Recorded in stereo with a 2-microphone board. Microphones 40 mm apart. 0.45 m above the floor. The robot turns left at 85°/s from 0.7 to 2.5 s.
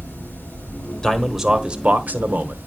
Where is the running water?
100° left, 8.5 m; by 2.7 s 55° right, 8.5 m.